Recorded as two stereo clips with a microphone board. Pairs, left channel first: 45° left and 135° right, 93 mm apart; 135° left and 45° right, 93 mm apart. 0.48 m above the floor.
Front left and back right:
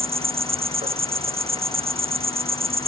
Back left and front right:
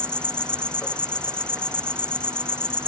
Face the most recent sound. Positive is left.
turn(degrees=-145)